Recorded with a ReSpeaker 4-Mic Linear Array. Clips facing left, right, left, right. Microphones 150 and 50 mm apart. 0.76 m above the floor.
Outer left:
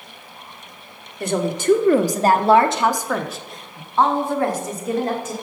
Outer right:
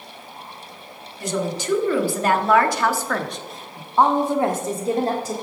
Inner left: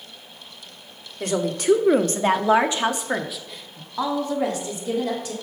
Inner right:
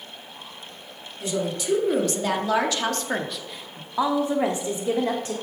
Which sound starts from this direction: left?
A woman speaking, at 1.2 s.